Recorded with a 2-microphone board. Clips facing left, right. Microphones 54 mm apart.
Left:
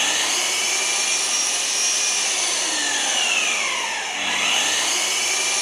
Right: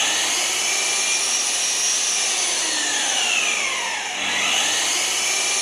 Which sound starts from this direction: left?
An engine running, at 0.0 s.